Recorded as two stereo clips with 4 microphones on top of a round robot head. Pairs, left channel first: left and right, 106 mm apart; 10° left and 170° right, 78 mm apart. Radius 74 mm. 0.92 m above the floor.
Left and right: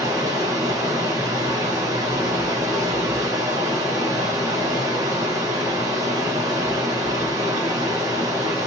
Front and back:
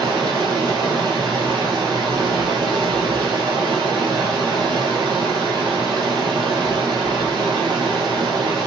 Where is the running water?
150° right, 1.5 m.